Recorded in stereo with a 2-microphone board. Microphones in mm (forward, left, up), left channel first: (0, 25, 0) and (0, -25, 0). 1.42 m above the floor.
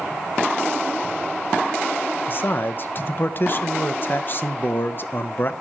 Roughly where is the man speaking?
Left.